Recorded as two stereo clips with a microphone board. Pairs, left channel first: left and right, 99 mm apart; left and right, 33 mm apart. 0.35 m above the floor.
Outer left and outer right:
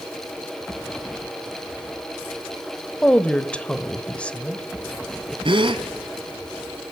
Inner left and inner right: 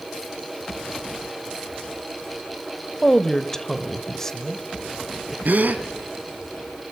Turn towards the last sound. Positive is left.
turn(degrees=-60)  # may be behind; listen again after turning